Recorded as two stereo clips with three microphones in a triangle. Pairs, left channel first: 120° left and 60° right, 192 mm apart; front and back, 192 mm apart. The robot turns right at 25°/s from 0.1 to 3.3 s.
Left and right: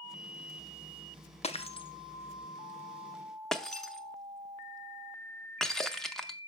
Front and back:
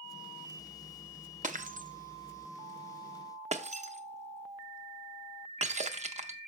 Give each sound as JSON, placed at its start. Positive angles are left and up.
{"t": 1.4, "sound": "breaking glass", "azimuth_deg": 160, "distance_m": 0.6}